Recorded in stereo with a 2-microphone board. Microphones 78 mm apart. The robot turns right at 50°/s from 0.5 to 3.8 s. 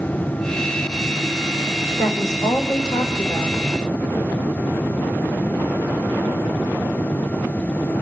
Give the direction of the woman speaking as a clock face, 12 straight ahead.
11 o'clock.